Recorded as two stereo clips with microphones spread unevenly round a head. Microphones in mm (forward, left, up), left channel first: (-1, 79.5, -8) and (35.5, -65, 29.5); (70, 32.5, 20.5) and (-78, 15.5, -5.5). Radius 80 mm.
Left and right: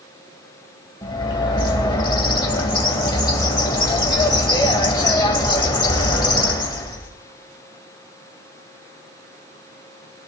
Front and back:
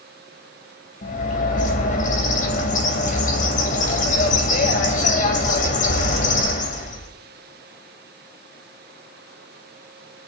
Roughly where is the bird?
Ahead left.